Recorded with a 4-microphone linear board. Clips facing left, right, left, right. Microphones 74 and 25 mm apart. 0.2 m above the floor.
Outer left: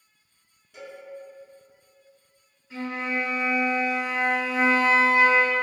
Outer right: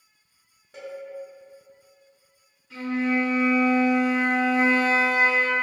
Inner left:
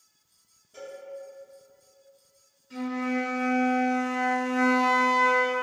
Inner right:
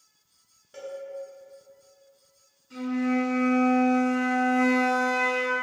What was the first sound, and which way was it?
A cowbell, 50° right (ahead or behind).